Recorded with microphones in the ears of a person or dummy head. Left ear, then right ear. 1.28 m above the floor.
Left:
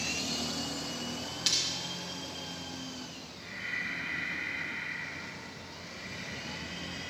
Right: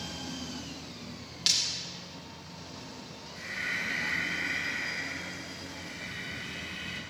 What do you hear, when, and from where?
1.5 s breaking glass: 5° left (ahead or behind), 0.5 m
3.4 s breathing: 90° right, 3 m